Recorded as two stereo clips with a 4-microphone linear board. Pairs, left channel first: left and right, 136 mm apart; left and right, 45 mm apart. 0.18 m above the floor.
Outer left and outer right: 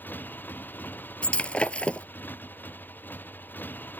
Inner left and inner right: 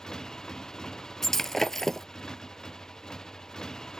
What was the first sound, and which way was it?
A motorcycle, 15° left (ahead or behind).